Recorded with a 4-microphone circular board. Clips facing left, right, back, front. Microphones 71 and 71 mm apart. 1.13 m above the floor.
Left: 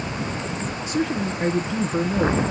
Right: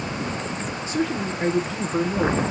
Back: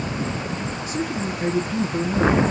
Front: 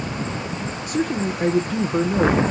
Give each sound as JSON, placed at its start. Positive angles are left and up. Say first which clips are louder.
{"t": 0.9, "sound": "a man speaking", "louder": "left 1 dB, front 5 dB", "azimuth_deg": 5, "distance_m": 0.9}